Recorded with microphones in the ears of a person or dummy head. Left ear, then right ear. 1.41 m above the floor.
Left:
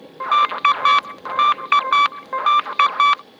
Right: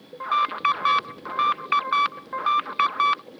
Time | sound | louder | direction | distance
0.2 | an alarm | left 6 dB | 25° left (ahead or behind) | ?